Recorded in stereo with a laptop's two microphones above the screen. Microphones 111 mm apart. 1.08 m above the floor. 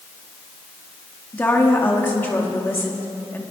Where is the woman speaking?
20° left (ahead or behind), 2.5 m.